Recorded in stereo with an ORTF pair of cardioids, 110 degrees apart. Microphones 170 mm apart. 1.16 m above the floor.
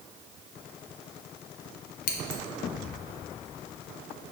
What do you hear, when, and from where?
2.1 s scissors: 55° left, 0.7 m